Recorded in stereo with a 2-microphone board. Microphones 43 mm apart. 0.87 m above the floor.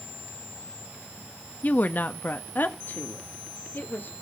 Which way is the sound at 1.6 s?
40° left (ahead or behind).